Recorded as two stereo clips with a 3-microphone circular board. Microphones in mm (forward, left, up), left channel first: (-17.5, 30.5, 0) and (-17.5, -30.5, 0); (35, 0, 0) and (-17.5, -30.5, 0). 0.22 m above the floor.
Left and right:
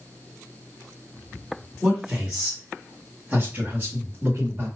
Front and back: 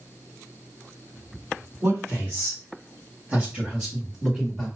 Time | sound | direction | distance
1.8 | a man speaking | 170° right | 2.5 m